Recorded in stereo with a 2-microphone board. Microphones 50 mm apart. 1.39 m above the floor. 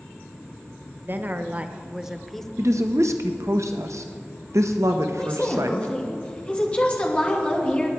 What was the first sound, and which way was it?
A woman speaking, 45° right (ahead or behind).